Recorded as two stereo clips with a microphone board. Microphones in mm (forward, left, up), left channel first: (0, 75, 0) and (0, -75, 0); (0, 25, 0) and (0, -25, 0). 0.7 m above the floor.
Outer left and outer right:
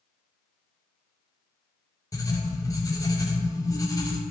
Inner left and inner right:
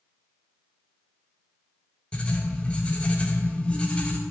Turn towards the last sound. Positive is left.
turn(degrees=25)  # may be behind; listen again after turning